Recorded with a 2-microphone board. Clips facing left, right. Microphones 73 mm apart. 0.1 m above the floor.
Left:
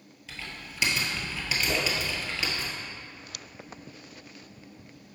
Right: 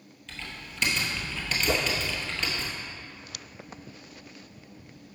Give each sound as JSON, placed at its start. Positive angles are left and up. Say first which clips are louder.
{"t": 0.3, "sound": "typing on a keyboard", "louder": "even", "side_deg": 5, "distance_m": 1.3}
{"t": 1.7, "sound": "a whoosh", "louder": "right 3 dB", "side_deg": -35, "distance_m": 0.9}